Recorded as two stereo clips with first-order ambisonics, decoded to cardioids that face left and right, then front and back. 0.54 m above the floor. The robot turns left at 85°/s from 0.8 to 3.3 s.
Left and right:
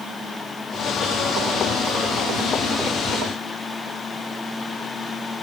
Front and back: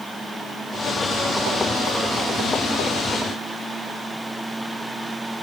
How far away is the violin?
I don't hear a violin.